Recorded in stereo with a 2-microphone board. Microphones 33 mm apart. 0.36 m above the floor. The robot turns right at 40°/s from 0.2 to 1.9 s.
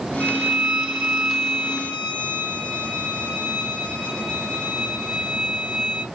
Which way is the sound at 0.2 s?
50° right.